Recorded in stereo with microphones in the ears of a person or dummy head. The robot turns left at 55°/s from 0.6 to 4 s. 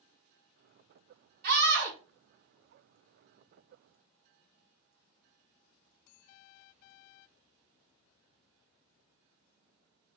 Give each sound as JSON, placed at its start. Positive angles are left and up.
{"t": 1.4, "sound": "a scream", "side_deg": -50, "distance_m": 1.4}